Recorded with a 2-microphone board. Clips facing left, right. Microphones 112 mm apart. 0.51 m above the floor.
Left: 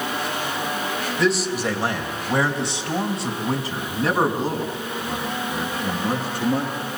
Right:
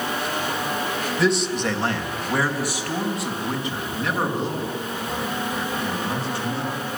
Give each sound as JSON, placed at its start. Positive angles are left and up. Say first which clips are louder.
{"t": 1.2, "sound": "a man speaking", "louder": "even", "side_deg": 0, "distance_m": 3.0}